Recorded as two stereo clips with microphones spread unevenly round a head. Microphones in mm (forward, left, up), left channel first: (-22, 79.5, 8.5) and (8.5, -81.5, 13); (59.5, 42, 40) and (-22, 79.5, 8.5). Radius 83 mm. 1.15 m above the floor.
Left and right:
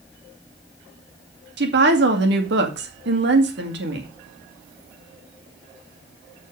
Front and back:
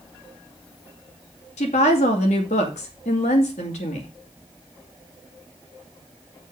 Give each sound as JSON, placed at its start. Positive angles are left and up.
{"t": 1.6, "sound": "a woman speaking", "azimuth_deg": -55, "distance_m": 2.0}